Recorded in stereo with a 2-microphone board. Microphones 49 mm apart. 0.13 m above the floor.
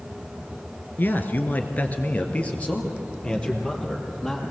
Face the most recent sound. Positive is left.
turn(degrees=15)  # may be behind; listen again after turning